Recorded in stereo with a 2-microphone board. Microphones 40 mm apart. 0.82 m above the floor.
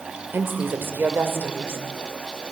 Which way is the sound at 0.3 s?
65° right (ahead or behind).